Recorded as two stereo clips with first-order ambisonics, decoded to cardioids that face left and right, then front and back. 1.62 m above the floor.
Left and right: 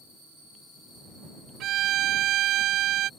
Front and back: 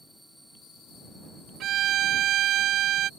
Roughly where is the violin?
Behind right.